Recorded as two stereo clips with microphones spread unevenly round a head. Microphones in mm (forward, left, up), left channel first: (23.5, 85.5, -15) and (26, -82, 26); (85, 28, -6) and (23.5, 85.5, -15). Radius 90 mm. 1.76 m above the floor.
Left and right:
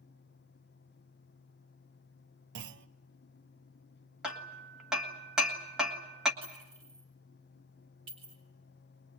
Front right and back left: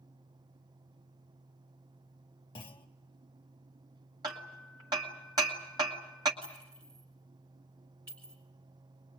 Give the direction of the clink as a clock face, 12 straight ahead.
5 o'clock.